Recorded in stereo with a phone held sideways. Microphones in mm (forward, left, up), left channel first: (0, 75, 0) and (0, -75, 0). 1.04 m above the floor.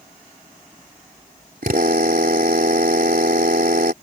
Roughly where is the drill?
Right.